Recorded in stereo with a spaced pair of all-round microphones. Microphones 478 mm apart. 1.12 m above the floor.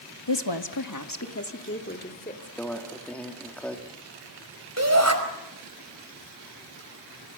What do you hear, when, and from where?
0.3 s a woman speaking: 65° left (ahead or behind), 1.3 m; by 2.5 s 15° left (ahead or behind), 3 m
2.6 s a microwave: 5° left (ahead or behind), 2 m
4.8 s a shout: 30° right (ahead or behind), 5 m